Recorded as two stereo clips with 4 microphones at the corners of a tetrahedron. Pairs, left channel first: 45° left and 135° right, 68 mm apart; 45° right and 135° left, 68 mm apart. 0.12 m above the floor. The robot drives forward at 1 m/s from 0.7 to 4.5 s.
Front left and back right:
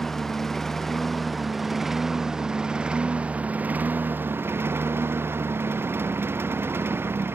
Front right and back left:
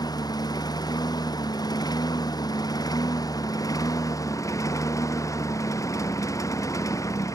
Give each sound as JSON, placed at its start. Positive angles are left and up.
{"t": 0.0, "sound": "a lawn mower", "azimuth_deg": -40}